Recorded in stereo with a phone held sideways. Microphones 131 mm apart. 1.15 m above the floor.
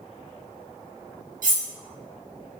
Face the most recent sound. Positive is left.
turn(degrees=-70)  # may be behind; listen again after turning